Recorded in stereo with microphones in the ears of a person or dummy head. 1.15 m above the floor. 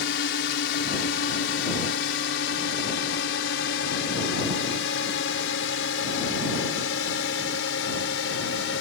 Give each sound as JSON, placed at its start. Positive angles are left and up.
{"t": 0.0, "sound": "a drone", "side_deg": 65}